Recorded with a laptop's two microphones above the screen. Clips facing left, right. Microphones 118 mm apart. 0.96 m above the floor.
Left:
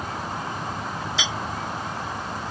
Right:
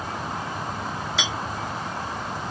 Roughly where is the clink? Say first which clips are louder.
Right 1 dB; right.